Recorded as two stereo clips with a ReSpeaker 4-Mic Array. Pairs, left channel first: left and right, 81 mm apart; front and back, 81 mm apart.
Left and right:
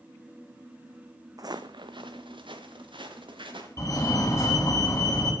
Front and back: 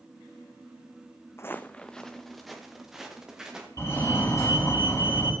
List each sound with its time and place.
1.4 s footsteps: 55° right, 0.8 m; by 3.7 s 100° right, 4 m
3.8 s a fire alarm: 50° left, 4 m